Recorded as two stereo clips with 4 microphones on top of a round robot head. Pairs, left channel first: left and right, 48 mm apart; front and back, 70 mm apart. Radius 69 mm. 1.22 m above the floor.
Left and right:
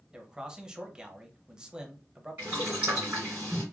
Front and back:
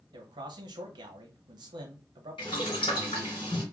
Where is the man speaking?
165° right, 0.9 m.